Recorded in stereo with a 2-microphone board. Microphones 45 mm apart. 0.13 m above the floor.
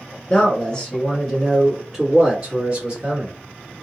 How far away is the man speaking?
About 1.7 m.